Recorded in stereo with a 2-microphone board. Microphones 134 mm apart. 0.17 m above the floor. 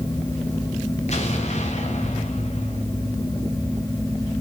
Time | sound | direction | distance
1.1 | an explosion | 60° left (ahead or behind) | 5 m